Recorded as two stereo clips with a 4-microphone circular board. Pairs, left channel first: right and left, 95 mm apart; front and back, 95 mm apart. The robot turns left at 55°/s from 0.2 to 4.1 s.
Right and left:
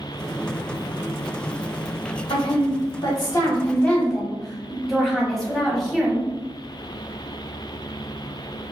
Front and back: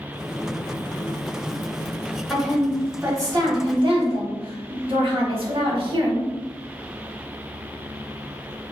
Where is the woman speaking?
80° right, 1.2 m; by 6.3 s straight behind, 1.2 m.